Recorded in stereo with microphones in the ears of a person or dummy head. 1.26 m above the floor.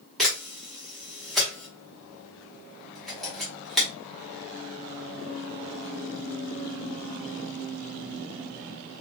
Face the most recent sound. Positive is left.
turn(degrees=-5)  # may be behind; listen again after turning